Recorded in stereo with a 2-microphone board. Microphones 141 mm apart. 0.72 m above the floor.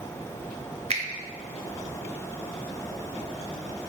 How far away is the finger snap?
About 0.6 m.